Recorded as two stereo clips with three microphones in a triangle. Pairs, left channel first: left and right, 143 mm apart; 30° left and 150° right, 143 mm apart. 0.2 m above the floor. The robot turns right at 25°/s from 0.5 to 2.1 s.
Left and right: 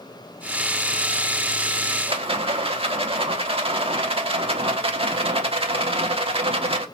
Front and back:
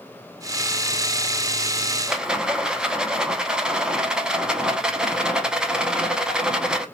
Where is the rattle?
70° right, 0.6 m; by 6.8 s 65° right, 0.6 m.